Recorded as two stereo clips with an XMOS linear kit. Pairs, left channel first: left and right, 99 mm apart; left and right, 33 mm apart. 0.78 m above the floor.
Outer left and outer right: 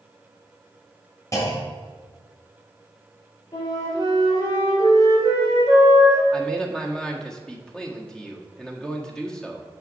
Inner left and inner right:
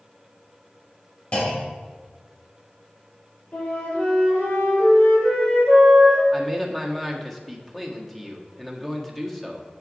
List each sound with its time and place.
1.3 s a clunk: 35° left (ahead or behind), 2 m
3.5 s a flute: 40° left (ahead or behind), 4.5 m
6.3 s a man speaking: 5° left (ahead or behind), 1.5 m